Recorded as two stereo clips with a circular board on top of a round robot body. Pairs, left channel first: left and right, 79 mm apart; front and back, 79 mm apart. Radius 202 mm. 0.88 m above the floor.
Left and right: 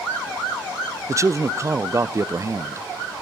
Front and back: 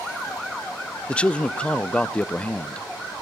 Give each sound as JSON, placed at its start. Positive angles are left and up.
{"t": 1.1, "sound": "a man speaking", "azimuth_deg": -70, "distance_m": 0.6}